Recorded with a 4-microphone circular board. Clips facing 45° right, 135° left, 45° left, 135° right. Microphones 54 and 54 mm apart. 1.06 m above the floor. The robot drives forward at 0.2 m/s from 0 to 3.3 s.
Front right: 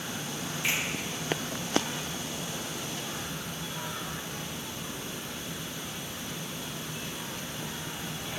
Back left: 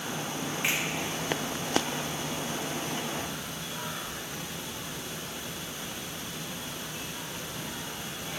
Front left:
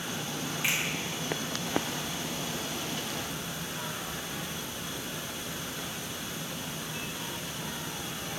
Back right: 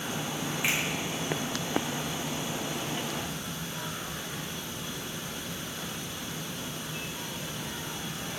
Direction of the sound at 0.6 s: 160° left.